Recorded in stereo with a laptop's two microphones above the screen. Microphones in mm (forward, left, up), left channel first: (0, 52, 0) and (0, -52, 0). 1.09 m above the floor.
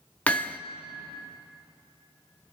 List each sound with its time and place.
0.3 s hammering: 15° left (ahead or behind), 1.2 m